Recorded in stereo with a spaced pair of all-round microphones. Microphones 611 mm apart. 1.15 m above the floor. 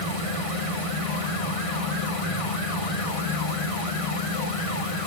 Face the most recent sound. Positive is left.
turn(degrees=60)  # may be behind; listen again after turning